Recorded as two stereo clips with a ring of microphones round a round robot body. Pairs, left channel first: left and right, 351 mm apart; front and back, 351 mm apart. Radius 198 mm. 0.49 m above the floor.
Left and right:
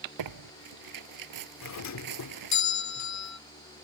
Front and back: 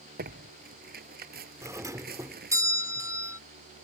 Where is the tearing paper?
115° right.